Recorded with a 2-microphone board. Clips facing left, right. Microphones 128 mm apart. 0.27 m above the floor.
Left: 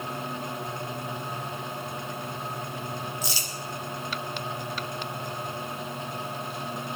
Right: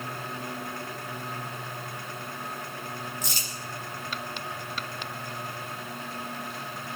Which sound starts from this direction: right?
Crumpling, at 3.2 s.